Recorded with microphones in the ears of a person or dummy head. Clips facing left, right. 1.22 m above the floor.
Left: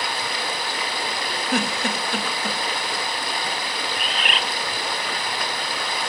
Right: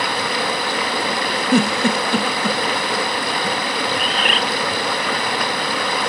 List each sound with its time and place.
0.0 s running water: 45° right (ahead or behind), 0.7 m
1.5 s a giggle: 75° right (ahead or behind), 1.5 m
3.9 s a bird: 30° right (ahead or behind), 0.7 m